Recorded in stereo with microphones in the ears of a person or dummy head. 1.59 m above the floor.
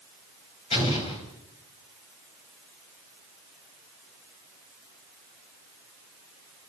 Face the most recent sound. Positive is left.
turn(degrees=30)  # may be behind; listen again after turning